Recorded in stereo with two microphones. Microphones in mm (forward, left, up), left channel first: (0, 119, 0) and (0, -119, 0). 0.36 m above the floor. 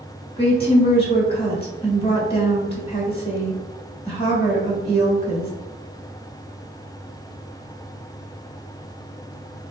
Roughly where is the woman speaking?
Left.